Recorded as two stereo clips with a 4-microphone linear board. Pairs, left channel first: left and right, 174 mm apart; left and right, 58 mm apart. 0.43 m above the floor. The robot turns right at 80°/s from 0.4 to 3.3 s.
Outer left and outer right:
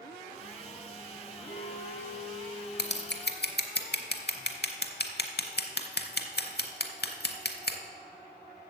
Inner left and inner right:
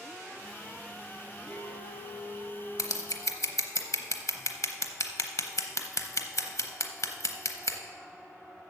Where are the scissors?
70° left (ahead or behind), 0.7 m.